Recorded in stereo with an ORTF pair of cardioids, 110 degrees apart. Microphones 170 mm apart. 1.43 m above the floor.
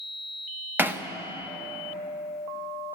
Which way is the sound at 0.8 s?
10° right.